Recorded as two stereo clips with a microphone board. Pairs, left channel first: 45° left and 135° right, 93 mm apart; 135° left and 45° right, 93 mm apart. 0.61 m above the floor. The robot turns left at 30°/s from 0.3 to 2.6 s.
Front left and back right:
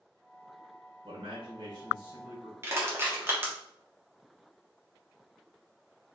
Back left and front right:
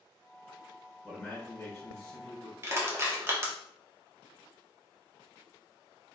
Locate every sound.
1.0 s a man speaking: 145° right, 1.8 m; by 2.5 s 170° left, 1.8 m
2.6 s crushing: 85° right, 1.4 m